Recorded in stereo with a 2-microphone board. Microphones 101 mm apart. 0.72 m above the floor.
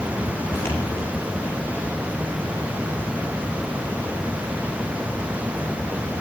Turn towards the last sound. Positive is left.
turn(degrees=30)  # may be behind; listen again after turning